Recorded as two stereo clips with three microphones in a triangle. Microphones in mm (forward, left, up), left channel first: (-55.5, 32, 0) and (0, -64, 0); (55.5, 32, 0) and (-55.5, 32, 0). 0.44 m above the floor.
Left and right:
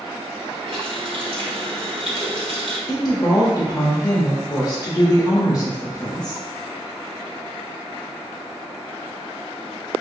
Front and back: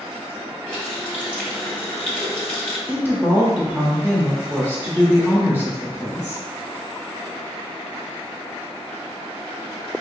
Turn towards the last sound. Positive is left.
turn(degrees=120)